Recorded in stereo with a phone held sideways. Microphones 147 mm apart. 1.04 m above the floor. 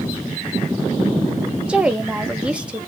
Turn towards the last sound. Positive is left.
turn(degrees=-10)  # may be behind; listen again after turning